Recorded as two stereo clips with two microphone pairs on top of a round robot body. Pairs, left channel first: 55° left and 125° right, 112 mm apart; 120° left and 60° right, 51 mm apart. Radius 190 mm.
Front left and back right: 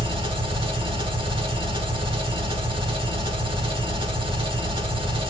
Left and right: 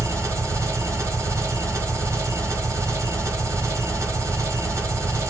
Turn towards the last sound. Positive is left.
turn(degrees=-85)